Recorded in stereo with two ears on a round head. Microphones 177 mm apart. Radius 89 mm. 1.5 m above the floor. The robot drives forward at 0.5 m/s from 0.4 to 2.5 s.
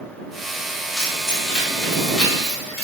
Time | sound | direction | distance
1.0 | keys jangling | 5° left (ahead or behind) | 1.1 m